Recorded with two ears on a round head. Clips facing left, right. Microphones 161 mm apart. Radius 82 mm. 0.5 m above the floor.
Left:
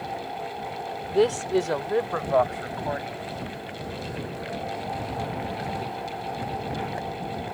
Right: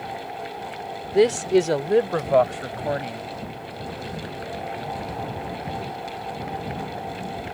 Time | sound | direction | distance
1.1 | a man speaking | 20° right (ahead or behind) | ?